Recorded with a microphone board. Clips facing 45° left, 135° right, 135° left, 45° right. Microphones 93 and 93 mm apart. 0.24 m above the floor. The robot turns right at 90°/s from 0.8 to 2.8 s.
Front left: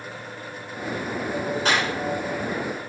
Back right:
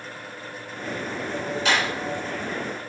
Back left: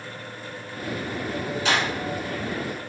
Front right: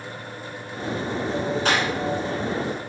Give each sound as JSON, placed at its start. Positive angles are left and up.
{"t": 1.6, "sound": "a clap", "azimuth_deg": -5, "distance_m": 2.5}